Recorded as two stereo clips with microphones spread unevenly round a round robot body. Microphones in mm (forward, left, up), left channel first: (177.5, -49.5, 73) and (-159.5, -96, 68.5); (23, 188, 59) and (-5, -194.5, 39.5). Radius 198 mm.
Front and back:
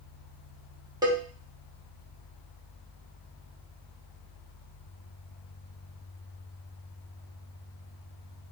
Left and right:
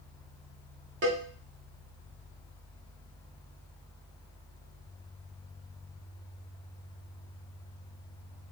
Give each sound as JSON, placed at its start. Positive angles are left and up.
{"t": 1.0, "sound": "a cowbell", "azimuth_deg": -105, "distance_m": 0.9}